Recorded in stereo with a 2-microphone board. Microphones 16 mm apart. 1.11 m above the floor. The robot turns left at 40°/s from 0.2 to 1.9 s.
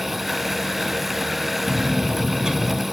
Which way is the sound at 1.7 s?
80° right.